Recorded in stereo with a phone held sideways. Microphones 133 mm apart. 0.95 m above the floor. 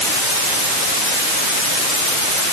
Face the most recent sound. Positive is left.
No sound to turn to.